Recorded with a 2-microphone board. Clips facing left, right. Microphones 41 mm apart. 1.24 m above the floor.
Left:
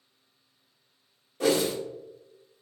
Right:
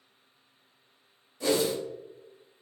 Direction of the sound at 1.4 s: 60° left (ahead or behind).